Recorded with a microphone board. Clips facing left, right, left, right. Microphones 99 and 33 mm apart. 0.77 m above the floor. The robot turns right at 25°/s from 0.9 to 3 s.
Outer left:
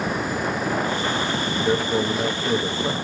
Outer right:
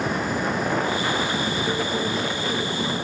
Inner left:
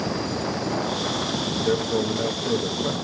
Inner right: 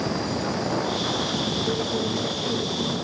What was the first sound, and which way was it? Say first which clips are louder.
A man speaking: outer left 3 dB, inner left 2 dB; 30° left (ahead or behind).